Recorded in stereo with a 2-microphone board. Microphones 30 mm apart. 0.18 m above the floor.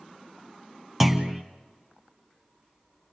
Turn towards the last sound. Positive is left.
turn(degrees=-10)  # may be behind; listen again after turning